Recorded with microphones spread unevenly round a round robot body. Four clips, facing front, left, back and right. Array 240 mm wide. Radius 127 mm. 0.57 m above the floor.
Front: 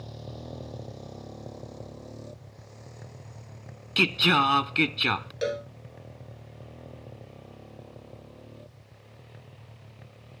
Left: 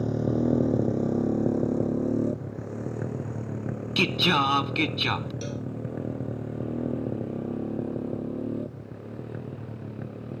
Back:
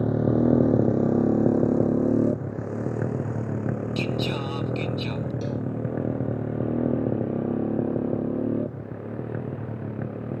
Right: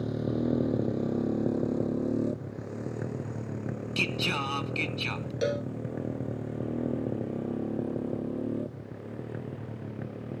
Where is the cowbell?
45° right.